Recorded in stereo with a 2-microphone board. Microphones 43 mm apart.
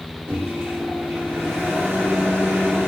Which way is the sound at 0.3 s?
60° right (ahead or behind).